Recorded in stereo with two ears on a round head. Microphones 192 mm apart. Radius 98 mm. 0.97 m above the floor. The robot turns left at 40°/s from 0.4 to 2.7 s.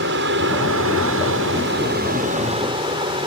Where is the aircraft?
60° right; by 3.3 s 155° right.